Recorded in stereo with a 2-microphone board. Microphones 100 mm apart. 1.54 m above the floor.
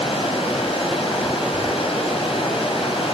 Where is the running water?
70° left (ahead or behind), 8 m.